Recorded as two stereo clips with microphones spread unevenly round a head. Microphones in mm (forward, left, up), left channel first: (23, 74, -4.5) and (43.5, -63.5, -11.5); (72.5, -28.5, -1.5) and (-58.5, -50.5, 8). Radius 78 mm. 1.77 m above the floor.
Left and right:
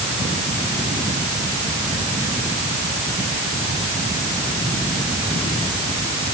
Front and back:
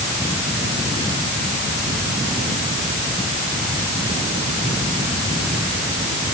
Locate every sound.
Only background noise.